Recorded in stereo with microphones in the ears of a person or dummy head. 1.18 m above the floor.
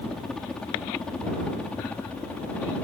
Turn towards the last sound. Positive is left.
turn(degrees=5)  # may be behind; listen again after turning